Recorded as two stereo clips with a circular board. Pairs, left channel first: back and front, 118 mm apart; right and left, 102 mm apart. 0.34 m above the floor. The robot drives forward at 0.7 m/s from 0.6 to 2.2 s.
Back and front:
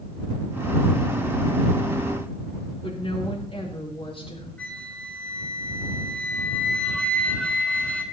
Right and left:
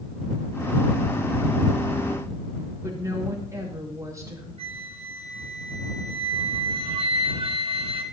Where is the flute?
100° left, 1.7 m.